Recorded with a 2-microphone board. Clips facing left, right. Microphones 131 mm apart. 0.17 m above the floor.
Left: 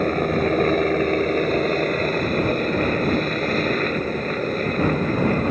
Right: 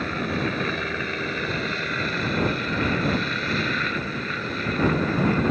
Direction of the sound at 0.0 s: 45° left (ahead or behind).